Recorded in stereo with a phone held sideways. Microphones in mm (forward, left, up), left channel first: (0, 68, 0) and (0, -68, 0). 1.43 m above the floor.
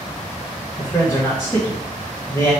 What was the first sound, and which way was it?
A man speaking, 15° left (ahead or behind).